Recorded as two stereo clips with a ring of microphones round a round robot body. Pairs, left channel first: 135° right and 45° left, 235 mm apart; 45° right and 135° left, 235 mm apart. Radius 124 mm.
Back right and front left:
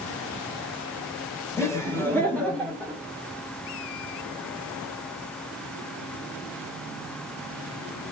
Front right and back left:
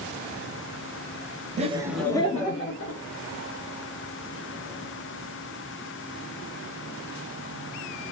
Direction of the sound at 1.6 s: 155° left.